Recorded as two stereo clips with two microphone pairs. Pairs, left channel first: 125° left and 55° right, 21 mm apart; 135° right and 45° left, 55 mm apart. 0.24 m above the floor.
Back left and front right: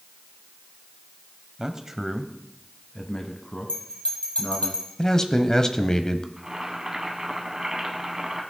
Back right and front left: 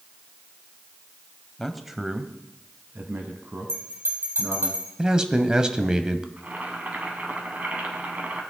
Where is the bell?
90° left, 3.5 m.